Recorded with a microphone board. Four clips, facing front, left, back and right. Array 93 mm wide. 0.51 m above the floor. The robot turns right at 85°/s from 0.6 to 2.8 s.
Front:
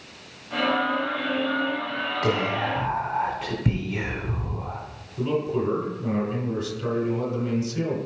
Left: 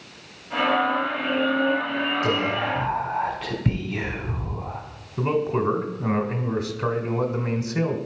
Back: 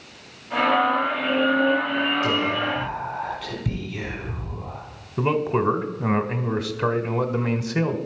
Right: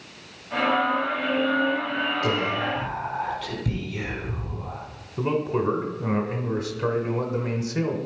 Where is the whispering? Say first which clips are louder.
Left 1 dB, back 1 dB; straight ahead, 1.6 m; by 4.8 s 50° left, 1.6 m.